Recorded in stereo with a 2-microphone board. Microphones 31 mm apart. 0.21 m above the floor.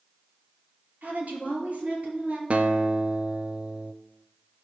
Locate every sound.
1.0 s a woman speaking: 60° right (ahead or behind), 4.5 m; by 2.4 s 40° right (ahead or behind), 3.5 m
2.5 s a guitar: 45° right (ahead or behind), 0.6 m